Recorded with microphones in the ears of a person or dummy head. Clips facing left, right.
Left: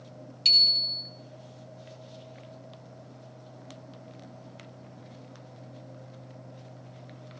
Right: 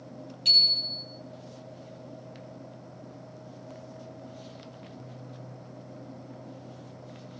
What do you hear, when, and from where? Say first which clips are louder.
0.5 s a bicycle bell: right 2 dB; 25° left (ahead or behind), 3 m